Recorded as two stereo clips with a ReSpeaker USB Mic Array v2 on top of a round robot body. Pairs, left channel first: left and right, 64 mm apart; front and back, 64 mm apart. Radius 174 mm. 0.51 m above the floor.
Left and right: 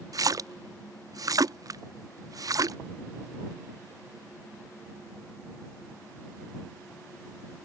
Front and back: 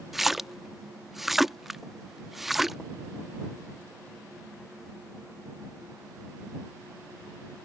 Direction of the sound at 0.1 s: 95° right.